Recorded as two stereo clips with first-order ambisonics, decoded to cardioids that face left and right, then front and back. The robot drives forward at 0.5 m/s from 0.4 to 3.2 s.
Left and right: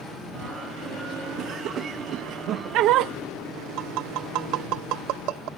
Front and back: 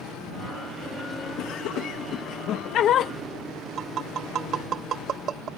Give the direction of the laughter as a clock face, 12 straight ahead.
1 o'clock.